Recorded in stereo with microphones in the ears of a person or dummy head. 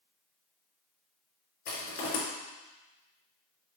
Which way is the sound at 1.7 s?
45° left (ahead or behind).